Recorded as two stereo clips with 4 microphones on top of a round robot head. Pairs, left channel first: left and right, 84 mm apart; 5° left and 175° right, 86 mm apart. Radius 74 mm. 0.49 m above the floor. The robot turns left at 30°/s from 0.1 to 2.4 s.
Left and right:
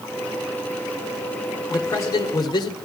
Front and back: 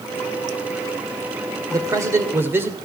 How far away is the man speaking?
About 1.7 m.